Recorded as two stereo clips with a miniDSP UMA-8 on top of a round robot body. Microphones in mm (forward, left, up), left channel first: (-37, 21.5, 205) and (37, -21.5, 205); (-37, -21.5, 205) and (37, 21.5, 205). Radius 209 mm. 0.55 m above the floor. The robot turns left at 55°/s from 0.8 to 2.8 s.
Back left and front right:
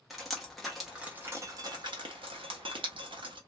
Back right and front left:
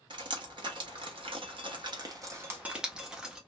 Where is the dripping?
60° left, 1.0 m; by 3.4 s 50° right, 1.0 m.